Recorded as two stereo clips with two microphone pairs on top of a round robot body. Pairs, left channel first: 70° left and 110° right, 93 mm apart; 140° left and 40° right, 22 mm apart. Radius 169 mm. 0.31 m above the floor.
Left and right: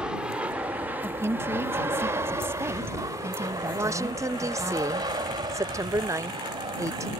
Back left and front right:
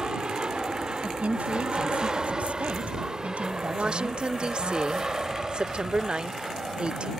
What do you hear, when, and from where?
0.0 s an aircraft: 60° right; by 7.2 s 100° right
1.0 s a woman speaking: 55° right
3.7 s a woman speaking: 75° right